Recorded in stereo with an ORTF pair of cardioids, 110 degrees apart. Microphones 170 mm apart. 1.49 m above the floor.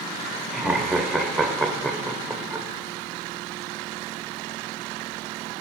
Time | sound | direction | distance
0.5 | laughter | straight ahead | 0.7 m